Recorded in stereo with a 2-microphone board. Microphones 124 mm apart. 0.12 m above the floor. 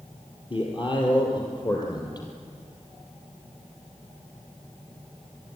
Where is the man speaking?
45° left (ahead or behind), 3.5 m; by 2.3 s 35° left (ahead or behind), 3.5 m.